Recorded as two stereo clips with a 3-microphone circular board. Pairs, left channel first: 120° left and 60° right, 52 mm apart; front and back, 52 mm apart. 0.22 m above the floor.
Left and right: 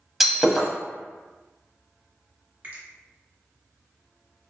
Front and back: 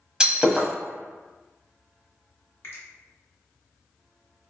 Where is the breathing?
No breathing in this recording.